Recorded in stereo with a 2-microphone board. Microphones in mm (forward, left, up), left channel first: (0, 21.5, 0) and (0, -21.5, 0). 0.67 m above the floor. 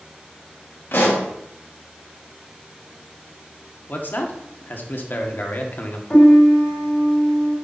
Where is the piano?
25° left (ahead or behind), 2.5 m.